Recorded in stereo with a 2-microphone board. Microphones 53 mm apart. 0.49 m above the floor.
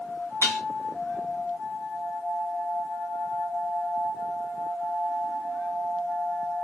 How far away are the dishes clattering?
About 1.3 m.